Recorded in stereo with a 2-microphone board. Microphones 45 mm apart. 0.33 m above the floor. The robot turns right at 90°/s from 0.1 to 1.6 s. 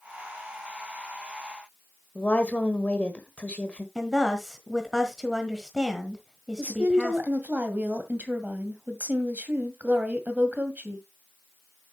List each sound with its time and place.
2.1 s a woman speaking: 30° left (ahead or behind), 1.4 m
4.0 s a woman speaking: 10° right (ahead or behind), 1.4 m
6.6 s a woman speaking: 40° right (ahead or behind), 2 m